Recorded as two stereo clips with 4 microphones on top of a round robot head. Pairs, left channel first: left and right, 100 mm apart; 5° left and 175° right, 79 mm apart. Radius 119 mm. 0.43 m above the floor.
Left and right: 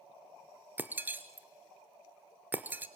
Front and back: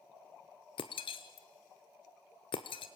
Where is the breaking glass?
20° right, 0.9 m.